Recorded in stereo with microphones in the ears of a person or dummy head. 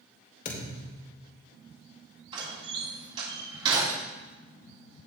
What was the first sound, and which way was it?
A thud, 50° left (ahead or behind).